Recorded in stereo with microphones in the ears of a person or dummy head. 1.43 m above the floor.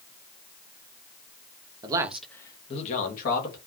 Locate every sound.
1.8 s a man speaking: 20° right (ahead or behind), 0.6 m; by 3.6 s 60° left (ahead or behind), 1.0 m